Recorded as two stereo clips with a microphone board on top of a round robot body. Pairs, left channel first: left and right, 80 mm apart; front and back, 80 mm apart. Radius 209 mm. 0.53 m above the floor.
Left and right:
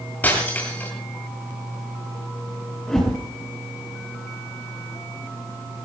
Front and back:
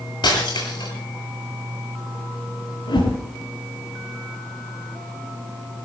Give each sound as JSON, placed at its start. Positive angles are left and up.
{"t": 0.2, "sound": "breaking glass", "azimuth_deg": 20, "distance_m": 9.0}
{"t": 2.9, "sound": "a whoosh", "azimuth_deg": 5, "distance_m": 8.0}